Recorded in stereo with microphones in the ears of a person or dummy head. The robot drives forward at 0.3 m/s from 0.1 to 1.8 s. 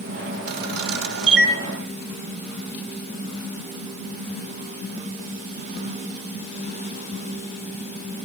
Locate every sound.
0.5 s a camera shutter: 60° right (ahead or behind), 1.1 m; by 1.5 s 75° right (ahead or behind), 1.0 m